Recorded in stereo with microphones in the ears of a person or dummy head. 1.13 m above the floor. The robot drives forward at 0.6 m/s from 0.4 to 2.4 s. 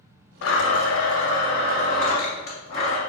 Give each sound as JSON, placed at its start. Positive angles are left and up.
{"t": 0.4, "sound": "a blender", "side_deg": 80, "distance_m": 0.9}